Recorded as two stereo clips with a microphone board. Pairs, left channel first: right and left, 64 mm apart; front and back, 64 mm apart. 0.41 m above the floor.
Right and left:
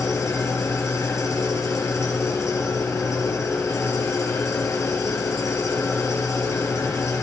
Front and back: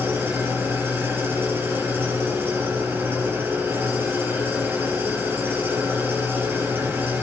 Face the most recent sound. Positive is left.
turn(degrees=-125)